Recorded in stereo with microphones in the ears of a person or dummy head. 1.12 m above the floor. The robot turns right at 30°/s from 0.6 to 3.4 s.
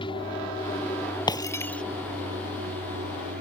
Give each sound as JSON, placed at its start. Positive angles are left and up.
{"t": 0.0, "sound": "an aircraft", "side_deg": 25}
{"t": 1.3, "sound": "breaking glass", "side_deg": 20}